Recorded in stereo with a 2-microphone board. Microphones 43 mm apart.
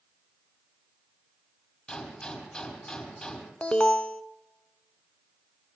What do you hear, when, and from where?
1.9 s a gunshot: 20° left (ahead or behind), 5 m
3.6 s an alarm: 25° left (ahead or behind), 0.8 m